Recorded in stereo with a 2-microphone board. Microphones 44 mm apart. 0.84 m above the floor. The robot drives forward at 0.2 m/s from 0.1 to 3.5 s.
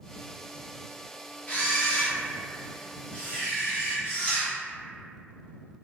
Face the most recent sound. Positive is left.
turn(degrees=30)  # may be behind; listen again after turning